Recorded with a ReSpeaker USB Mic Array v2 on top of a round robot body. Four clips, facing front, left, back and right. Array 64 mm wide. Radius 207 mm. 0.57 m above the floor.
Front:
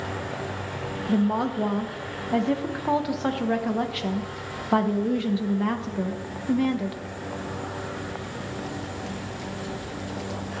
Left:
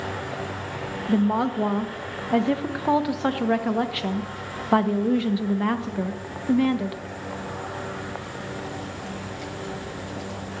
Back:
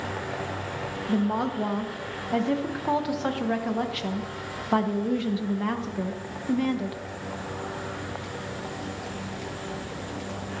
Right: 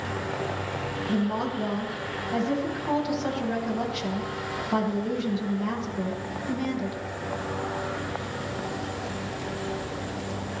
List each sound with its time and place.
1.1 s a woman speaking: 90° left, 1.3 m